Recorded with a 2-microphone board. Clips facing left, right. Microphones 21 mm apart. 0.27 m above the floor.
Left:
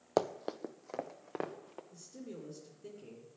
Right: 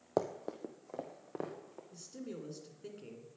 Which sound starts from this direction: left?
Running footsteps, at 0.2 s.